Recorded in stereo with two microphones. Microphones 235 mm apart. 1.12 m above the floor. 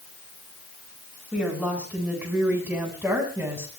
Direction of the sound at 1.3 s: 5° right (ahead or behind).